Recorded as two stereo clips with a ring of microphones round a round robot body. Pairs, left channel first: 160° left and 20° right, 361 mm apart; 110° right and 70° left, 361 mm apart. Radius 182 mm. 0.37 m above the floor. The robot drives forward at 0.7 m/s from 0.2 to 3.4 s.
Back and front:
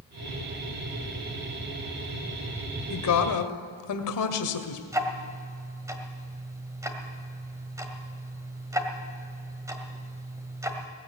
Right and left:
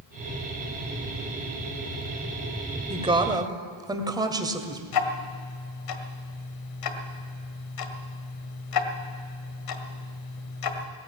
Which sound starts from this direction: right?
Ticking, at 4.9 s.